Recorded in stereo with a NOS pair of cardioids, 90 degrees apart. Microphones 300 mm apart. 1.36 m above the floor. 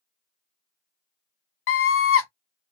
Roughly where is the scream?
Ahead left.